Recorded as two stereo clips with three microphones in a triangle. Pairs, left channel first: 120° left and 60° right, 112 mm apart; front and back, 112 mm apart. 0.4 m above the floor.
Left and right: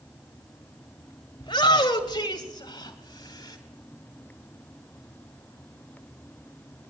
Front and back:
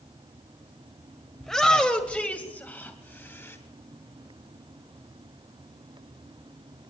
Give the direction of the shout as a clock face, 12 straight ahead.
9 o'clock.